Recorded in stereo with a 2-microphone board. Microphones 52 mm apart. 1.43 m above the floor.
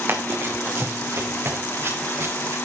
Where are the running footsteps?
40° right (ahead or behind), 4.5 m; by 2.5 s 50° right (ahead or behind), 8 m.